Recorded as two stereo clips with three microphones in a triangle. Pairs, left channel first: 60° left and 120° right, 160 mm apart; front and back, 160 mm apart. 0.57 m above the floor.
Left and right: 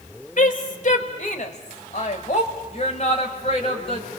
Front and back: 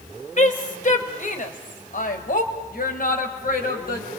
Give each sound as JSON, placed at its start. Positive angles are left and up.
{"t": 0.4, "sound": "a woman speaking", "azimuth_deg": 35, "distance_m": 2.5}